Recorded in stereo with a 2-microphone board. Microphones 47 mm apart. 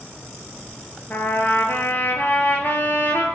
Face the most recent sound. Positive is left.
turn(degrees=45)  # may be behind; listen again after turning